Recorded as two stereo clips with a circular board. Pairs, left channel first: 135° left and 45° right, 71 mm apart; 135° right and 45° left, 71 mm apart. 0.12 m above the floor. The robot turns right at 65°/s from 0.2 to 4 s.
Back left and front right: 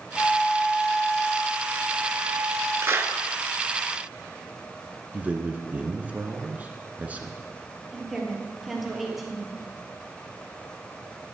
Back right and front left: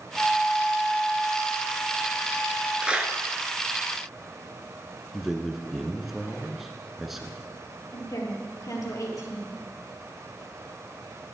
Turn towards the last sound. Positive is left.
turn(degrees=-130)